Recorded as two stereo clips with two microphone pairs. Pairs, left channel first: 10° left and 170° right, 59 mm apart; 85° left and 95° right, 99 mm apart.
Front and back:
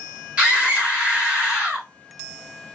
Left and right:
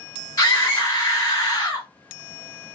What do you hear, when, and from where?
0.4 s a scream: 125° left, 1.4 m